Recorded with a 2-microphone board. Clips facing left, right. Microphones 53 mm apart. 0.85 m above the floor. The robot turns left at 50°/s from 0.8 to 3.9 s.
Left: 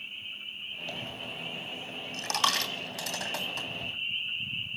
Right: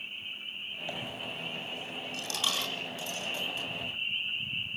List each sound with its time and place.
0.9 s a dropped coin: 20° right (ahead or behind), 3 m; by 3.9 s 45° left (ahead or behind), 3 m